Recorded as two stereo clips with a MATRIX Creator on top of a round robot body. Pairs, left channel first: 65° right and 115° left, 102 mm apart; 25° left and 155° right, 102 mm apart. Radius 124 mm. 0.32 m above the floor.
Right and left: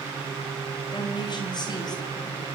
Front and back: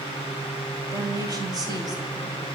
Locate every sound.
0.9 s a woman speaking: 105° right, 5.5 m; by 2.5 s 115° right, 5.5 m